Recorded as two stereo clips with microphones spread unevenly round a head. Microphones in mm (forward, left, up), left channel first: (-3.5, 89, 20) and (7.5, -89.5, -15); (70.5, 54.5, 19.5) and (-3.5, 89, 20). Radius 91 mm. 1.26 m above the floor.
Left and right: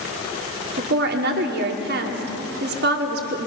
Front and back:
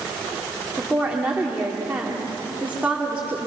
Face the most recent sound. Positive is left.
turn(degrees=-120)